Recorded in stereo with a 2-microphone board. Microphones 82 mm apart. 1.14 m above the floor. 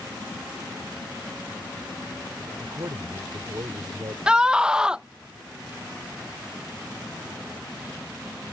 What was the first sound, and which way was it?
A man speaking, 55° right (ahead or behind).